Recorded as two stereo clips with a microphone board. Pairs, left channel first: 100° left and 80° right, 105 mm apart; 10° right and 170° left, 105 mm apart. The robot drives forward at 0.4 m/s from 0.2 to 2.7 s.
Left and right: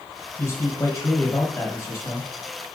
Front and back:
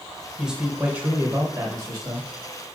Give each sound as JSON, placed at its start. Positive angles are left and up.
{"t": 0.4, "sound": "a man speaking", "azimuth_deg": 85, "distance_m": 0.9}